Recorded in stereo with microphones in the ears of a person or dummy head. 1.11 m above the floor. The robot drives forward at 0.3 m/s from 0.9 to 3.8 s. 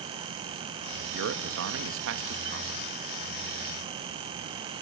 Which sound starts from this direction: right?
A man speaking, at 1.1 s.